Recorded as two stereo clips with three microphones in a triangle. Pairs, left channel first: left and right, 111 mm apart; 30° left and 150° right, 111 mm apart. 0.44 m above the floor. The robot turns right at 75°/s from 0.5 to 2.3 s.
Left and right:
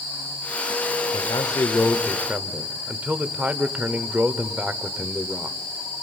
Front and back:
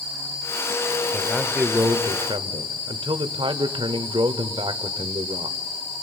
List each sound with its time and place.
1.1 s a man speaking: 110° left, 1.2 m; by 5.6 s 165° right, 1.2 m